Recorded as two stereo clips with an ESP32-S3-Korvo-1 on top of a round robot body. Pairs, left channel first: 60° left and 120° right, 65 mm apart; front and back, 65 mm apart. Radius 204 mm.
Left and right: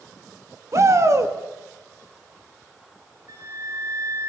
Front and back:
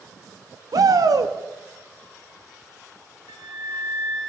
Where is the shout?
165° right, 2 m.